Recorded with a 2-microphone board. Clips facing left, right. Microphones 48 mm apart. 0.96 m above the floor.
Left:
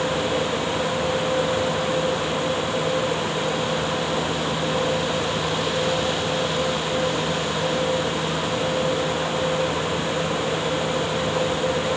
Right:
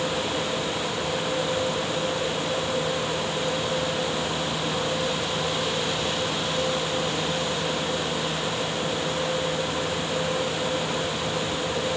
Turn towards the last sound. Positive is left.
No sound to turn to.